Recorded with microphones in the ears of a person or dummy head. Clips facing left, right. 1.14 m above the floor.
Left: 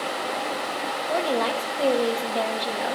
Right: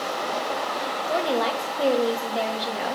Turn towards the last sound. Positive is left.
turn(degrees=-10)  # may be behind; listen again after turning